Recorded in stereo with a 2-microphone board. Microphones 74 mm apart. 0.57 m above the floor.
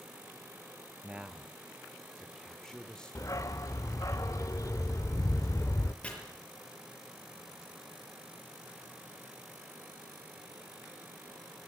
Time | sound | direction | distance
1.0 | a man speaking | 15° right (ahead or behind) | 0.7 m
3.1 | a dog barking | 45° left (ahead or behind) | 0.5 m
6.0 | chopping | 15° left (ahead or behind) | 5.5 m